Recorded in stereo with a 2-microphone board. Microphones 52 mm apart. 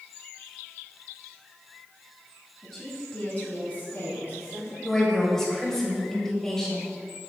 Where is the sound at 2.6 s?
5° left (ahead or behind), 1.6 m; by 4.7 s 55° left (ahead or behind), 2.5 m.